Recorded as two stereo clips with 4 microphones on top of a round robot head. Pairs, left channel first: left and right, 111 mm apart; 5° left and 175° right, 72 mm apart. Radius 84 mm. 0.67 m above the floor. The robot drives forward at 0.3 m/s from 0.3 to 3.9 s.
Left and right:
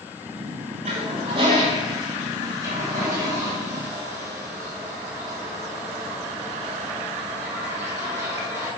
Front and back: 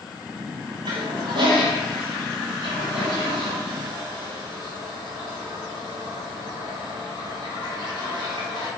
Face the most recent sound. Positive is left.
turn(degrees=-160)